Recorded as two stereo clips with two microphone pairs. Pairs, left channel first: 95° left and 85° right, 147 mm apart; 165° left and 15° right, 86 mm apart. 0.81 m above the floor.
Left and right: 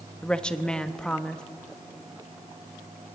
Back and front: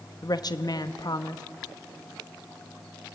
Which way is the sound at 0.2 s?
175° left.